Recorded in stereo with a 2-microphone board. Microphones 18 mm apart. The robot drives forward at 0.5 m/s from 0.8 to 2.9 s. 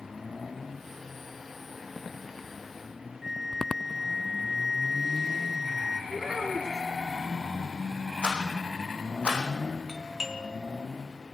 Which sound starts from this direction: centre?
A flute, at 3.2 s.